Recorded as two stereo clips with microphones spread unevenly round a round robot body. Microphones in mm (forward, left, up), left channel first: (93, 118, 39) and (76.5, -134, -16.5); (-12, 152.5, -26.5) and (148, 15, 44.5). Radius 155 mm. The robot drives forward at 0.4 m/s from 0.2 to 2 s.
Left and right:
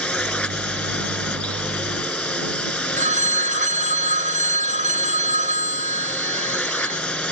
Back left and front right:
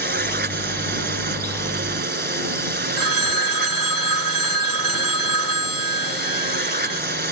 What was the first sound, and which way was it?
A drone, straight ahead.